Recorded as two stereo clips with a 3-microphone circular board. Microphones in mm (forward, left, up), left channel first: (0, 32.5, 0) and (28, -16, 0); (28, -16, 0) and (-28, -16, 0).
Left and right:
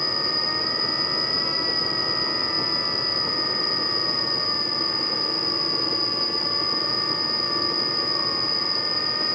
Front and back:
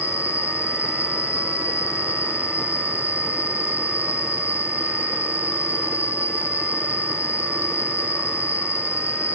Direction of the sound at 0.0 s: 30° left.